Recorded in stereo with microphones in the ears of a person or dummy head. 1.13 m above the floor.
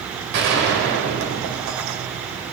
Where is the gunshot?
65° right (ahead or behind), 1.8 m.